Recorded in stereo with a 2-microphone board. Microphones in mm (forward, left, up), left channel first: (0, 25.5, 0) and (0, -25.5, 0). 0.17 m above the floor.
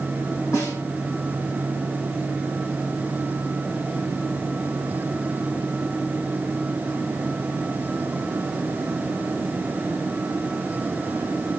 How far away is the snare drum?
About 6.5 m.